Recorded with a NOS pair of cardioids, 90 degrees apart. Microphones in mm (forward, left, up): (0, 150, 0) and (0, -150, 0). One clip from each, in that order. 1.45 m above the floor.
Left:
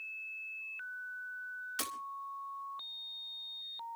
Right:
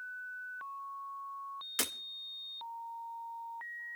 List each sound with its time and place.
1.8 s breaking glass: 40° right, 2.5 m